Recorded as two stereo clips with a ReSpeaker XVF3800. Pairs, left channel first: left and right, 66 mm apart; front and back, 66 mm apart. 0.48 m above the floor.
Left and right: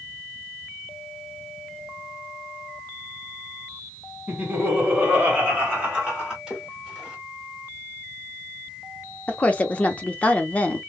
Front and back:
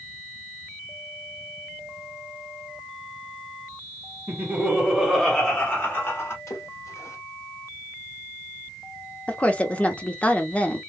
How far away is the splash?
About 1.6 m.